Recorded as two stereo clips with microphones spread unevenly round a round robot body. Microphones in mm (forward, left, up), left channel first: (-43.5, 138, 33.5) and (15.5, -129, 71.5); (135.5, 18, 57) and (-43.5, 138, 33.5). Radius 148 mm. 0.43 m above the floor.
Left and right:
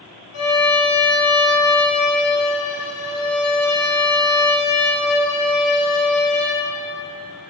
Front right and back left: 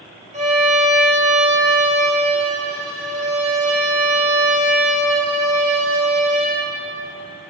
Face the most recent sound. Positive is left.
turn(degrees=85)